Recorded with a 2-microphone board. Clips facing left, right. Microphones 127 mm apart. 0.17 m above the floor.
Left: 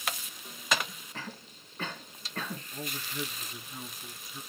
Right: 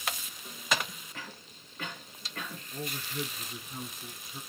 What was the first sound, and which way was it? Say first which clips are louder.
A cough: left 5 dB; 35° left (ahead or behind).